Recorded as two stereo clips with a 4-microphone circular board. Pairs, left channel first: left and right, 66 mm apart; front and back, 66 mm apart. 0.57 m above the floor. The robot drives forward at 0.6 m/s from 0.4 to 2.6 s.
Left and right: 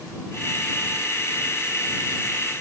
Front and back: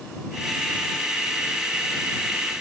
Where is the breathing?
I don't hear breathing.